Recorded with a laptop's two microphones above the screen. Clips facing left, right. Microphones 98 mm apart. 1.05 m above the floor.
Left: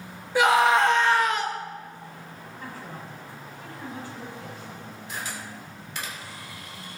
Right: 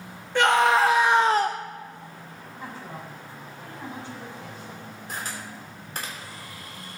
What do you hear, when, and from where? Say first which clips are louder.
0.3 s a scream: even; 5° left (ahead or behind), 1.6 m; by 1.6 s 55° right (ahead or behind), 0.6 m
2.6 s a woman speaking: right 2 dB; 25° right (ahead or behind), 7 m
5.1 s a camera shutter: right 1 dB; 45° right (ahead or behind), 3.5 m